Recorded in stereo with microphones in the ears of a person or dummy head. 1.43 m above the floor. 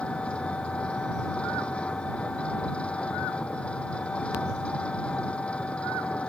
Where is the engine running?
10° left (ahead or behind).